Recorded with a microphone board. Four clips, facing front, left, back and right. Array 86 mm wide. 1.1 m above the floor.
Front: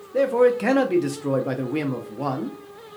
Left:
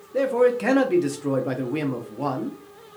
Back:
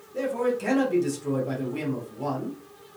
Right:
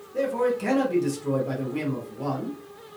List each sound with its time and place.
0.1 s a man speaking: 35° left, 0.6 m